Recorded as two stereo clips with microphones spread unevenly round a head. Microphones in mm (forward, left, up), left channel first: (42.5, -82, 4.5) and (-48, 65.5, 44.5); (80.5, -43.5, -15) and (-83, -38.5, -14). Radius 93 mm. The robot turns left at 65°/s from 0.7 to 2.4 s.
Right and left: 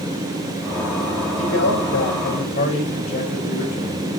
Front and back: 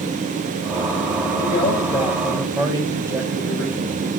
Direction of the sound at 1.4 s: 40° right.